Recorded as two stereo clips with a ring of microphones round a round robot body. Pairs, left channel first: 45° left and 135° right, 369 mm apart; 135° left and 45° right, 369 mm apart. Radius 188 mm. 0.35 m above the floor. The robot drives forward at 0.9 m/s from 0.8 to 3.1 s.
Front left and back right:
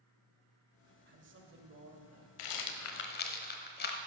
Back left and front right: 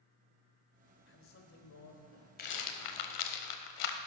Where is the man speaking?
175° left, 1.3 m; by 2.3 s straight behind, 2 m.